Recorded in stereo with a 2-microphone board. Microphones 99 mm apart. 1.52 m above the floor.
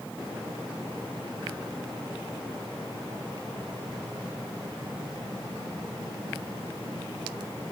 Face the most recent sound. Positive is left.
No sound to turn to.